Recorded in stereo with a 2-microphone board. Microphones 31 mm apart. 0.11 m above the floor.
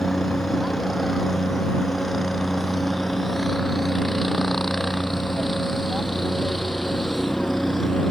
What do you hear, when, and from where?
0.0 s a helicopter: 5° left (ahead or behind)